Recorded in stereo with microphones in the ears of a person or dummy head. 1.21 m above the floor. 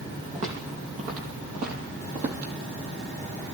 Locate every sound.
0.3 s footsteps: 40° right (ahead or behind), 3 m; by 2.5 s 55° right (ahead or behind), 2.5 m